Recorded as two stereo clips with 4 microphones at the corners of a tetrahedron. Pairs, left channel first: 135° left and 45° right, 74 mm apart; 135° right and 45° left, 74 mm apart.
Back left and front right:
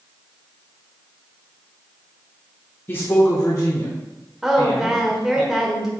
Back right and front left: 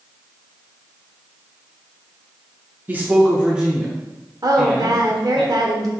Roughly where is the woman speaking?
Ahead left.